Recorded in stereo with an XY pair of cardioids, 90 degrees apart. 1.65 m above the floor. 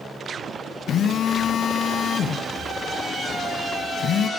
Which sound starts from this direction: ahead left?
A phone buzzing, at 0.9 s.